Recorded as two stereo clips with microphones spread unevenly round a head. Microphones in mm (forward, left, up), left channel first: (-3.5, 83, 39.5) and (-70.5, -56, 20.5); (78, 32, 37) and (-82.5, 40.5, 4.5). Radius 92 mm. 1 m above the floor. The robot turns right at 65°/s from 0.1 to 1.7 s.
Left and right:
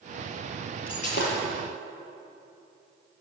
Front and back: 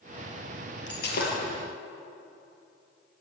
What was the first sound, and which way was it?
Breaking glass, straight ahead.